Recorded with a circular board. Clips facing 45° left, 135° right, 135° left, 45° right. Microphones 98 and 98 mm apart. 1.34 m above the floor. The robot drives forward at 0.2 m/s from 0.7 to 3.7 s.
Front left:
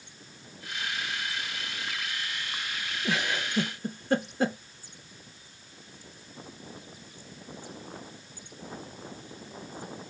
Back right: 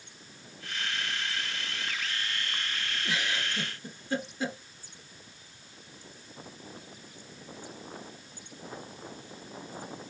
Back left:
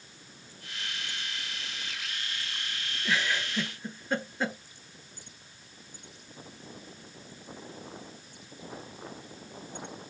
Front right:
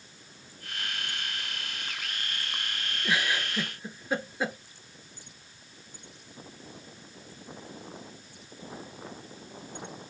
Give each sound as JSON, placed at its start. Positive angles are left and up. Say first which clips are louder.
{"t": 3.0, "sound": "a giggle", "louder": "front left 4 dB, front right 1 dB", "azimuth_deg": 30, "distance_m": 0.7}